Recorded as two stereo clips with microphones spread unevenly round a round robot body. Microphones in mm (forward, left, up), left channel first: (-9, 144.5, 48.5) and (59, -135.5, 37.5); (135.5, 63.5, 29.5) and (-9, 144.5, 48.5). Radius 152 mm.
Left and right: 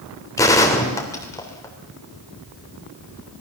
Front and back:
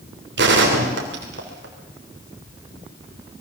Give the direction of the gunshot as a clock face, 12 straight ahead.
6 o'clock.